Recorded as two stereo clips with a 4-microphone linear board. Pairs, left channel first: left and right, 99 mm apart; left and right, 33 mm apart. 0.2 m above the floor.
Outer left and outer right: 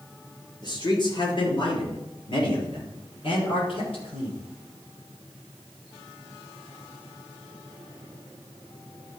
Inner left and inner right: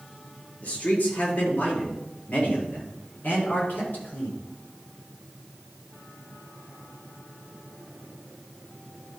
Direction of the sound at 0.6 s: 50° left (ahead or behind).